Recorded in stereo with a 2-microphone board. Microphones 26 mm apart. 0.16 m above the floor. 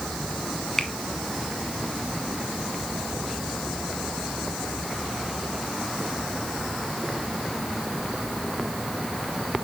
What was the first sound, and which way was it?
A finger snap, 20° left (ahead or behind).